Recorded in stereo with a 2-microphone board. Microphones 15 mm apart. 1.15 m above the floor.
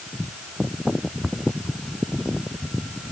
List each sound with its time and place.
Only background noise.